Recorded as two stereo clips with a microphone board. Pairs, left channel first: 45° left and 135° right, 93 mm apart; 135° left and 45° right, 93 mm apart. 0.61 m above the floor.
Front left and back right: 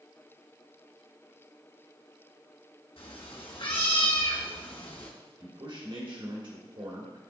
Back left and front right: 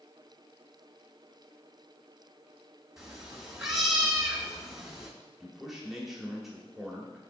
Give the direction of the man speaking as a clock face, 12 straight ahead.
4 o'clock.